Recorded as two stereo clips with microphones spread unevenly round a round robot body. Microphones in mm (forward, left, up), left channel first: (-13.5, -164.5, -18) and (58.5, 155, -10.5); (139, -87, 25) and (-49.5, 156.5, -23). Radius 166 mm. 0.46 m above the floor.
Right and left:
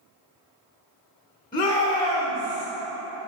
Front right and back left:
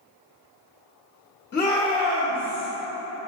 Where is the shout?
80° right, 0.9 m; by 2.7 s 150° left, 1.3 m.